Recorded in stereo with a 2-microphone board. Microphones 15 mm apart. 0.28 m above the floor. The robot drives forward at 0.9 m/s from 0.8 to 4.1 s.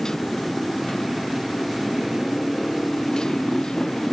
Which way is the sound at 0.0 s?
50° left (ahead or behind).